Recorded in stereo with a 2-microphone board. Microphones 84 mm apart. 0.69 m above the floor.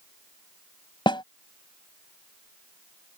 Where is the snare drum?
70° left (ahead or behind).